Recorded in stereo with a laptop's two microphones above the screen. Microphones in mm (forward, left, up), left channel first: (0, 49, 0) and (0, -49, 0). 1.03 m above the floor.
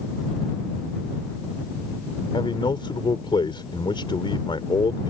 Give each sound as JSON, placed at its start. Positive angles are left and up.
{"t": 2.3, "sound": "a man speaking", "side_deg": 55}